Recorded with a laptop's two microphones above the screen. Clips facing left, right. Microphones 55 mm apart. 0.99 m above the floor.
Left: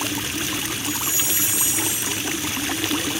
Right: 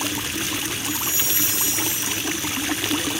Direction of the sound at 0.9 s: 20° left (ahead or behind).